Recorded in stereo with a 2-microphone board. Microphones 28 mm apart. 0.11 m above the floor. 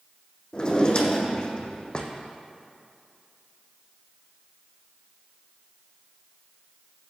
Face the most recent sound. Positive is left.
turn(degrees=35)  # may be behind; listen again after turning